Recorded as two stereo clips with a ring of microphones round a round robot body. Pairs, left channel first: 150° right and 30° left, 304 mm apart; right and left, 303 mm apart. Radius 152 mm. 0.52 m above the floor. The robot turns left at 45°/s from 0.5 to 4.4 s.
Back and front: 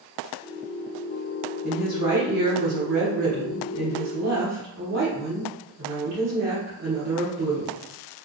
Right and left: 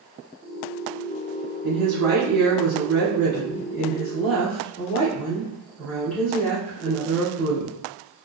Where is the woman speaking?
120° left, 1.7 m; by 7.8 s 5° right, 1.7 m.